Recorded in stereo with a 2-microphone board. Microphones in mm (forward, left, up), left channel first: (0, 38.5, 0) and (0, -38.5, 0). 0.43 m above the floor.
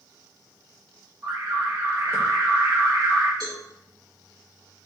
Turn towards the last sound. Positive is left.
turn(degrees=-60)  # may be behind; listen again after turning